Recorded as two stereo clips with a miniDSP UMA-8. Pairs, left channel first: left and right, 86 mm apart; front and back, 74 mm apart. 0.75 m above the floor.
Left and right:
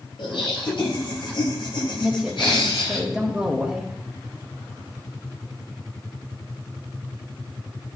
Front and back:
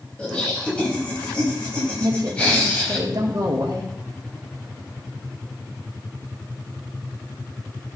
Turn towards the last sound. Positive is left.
turn(degrees=-170)